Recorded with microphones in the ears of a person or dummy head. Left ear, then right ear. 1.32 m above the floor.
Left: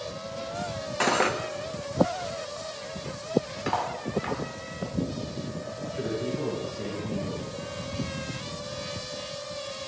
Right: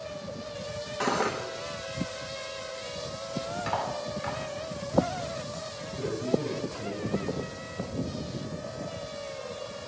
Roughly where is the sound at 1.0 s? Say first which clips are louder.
Left 4 dB; left.